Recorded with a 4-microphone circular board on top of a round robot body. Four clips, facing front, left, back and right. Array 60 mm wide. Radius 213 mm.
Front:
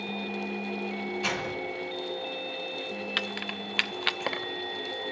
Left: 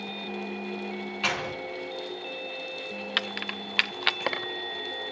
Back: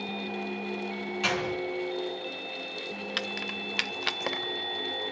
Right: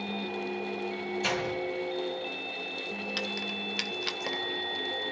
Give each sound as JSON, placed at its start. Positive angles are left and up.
{"t": 1.2, "sound": "a door slam", "azimuth_deg": 110, "distance_m": 5.0}
{"t": 3.2, "sound": "keys jangling", "azimuth_deg": 80, "distance_m": 0.7}